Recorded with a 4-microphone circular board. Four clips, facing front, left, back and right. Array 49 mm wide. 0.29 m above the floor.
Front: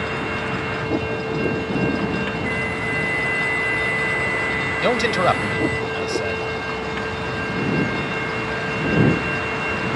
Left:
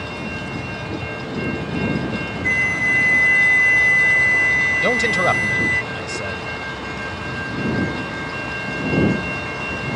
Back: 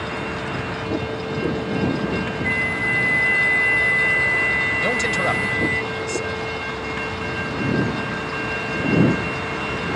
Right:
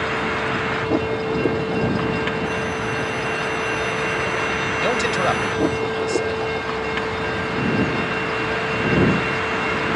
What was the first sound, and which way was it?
A vehicle, 85° right.